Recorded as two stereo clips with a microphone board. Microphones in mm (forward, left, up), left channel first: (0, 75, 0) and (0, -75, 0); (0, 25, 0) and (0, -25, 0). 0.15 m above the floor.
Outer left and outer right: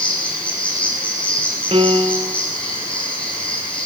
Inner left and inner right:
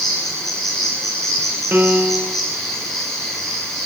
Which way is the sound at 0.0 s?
10° left (ahead or behind).